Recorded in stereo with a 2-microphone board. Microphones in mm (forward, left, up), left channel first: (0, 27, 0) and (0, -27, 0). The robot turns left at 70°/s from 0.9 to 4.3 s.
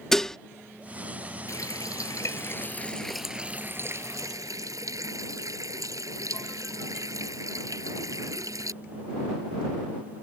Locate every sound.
0.1 s dishes clattering: 5° left (ahead or behind)
1.5 s a running tap: 115° left; by 8.7 s 80° right